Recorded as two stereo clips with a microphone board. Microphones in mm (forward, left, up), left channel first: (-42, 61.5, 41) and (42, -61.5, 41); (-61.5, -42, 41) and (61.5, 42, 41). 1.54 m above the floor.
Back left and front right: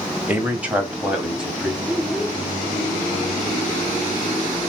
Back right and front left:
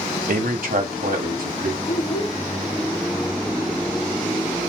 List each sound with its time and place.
0.3 s a man speaking: 20° left, 1.4 m; by 1.8 s 30° left, 2 m
1.9 s a child speaking: 145° right, 3.5 m